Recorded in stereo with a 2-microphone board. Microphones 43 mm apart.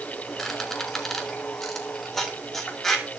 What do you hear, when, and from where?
0.4 s a squeak: 10° left (ahead or behind), 2.5 m